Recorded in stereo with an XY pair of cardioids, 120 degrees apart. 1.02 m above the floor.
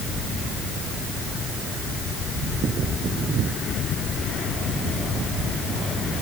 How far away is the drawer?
I don't hear a drawer.